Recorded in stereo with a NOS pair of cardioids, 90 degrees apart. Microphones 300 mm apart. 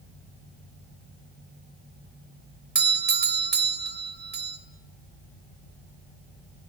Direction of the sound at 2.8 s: 35° right.